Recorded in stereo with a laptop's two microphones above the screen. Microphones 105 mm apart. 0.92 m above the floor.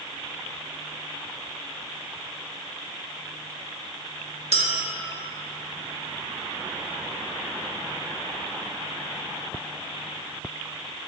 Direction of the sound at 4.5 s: 80° right.